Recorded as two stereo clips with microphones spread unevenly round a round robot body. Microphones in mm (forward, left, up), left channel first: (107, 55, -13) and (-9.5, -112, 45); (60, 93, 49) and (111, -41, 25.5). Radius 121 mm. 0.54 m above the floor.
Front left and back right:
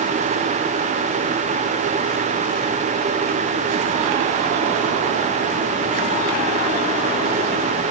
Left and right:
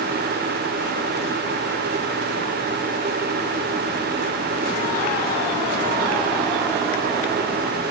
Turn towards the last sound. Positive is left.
No sound to turn to.